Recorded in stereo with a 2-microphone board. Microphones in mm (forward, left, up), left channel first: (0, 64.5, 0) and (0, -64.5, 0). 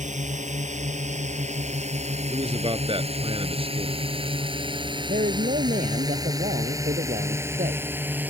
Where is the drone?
70° right (ahead or behind); by 8.3 s 15° right (ahead or behind).